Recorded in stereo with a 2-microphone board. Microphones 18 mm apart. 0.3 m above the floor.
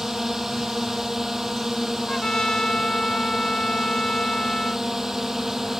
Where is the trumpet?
50° left (ahead or behind).